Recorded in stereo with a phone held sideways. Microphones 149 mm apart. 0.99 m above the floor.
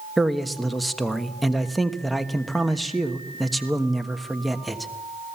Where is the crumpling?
No crumpling in this recording.